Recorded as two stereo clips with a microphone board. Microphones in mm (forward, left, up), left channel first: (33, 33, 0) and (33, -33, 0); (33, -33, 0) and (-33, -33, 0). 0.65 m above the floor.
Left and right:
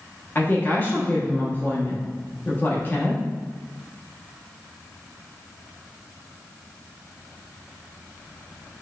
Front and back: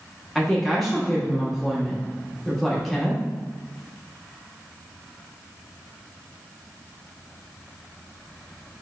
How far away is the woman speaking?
About 0.9 m.